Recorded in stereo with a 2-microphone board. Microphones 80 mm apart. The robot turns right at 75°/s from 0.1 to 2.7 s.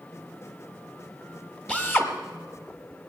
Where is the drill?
20° left, 1.5 m; by 2.1 s 50° left, 1.5 m.